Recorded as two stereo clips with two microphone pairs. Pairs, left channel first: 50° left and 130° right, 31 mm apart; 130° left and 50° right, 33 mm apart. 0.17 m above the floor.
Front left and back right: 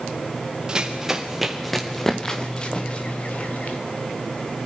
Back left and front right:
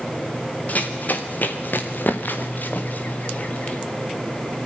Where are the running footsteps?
165° left, 3 m; by 3.8 s 90° left, 3.5 m.